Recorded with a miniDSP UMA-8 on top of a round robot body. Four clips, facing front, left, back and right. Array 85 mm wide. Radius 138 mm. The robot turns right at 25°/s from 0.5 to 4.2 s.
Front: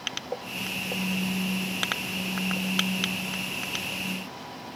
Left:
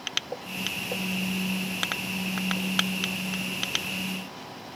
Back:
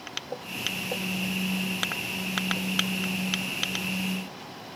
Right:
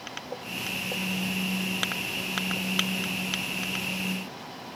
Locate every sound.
Only background noise.